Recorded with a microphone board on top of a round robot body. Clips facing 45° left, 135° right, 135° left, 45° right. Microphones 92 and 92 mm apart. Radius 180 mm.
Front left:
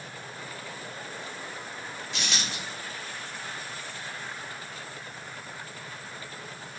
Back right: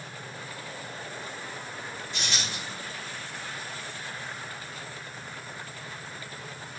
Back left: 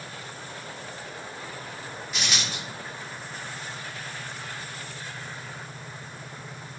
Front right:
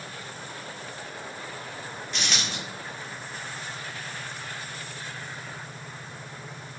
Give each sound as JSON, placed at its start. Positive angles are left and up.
{"t": 2.1, "sound": "a dropped coin", "azimuth_deg": 50, "distance_m": 0.7}